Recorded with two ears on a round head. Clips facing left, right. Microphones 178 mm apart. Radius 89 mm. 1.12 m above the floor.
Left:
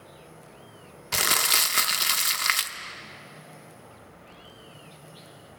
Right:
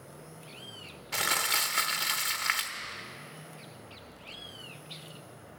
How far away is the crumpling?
About 1.0 m.